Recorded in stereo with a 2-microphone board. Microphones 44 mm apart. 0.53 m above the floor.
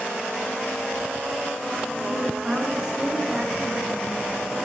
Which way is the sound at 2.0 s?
15° right (ahead or behind).